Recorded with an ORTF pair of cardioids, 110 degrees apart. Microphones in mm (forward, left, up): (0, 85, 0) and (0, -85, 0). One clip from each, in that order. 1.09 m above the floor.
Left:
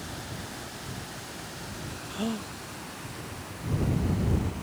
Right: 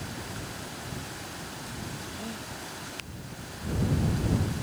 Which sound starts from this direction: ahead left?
A gasp, at 2.1 s.